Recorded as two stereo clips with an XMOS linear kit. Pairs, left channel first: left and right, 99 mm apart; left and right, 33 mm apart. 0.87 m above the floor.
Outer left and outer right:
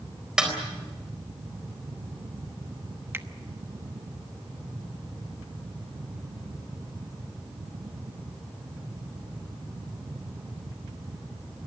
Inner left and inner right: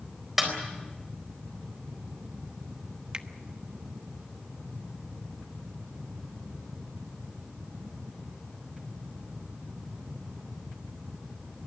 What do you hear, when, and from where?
0.4 s a snare drum: 5° right (ahead or behind), 4 m
3.1 s a finger snap: 20° right (ahead or behind), 1.0 m